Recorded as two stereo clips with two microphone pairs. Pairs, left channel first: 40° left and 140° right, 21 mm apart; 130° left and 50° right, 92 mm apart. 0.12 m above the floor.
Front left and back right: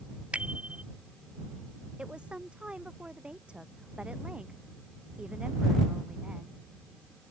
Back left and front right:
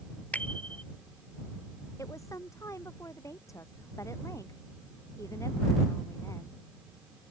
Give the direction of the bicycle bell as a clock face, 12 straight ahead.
5 o'clock.